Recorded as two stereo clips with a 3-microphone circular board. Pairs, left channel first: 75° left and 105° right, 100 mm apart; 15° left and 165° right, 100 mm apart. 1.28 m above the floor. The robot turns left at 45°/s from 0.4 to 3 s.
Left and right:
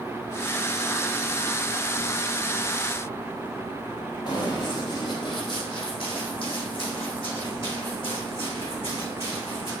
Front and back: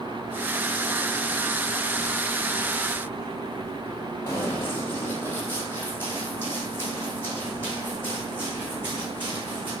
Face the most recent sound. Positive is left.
turn(degrees=85)